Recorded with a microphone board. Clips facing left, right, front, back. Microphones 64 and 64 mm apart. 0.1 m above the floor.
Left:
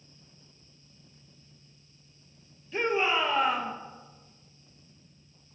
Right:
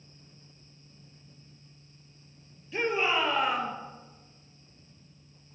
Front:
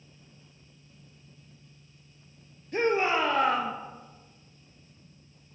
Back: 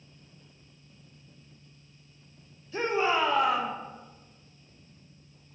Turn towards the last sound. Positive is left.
turn(degrees=-5)